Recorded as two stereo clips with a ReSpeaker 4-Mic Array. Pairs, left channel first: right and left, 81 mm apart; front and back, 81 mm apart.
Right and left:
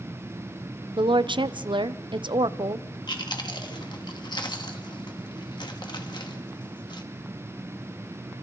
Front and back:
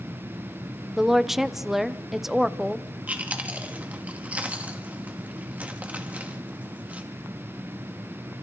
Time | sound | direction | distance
1.0 | a woman speaking | 95° left | 0.7 m
3.1 | chewing | 105° right | 1.8 m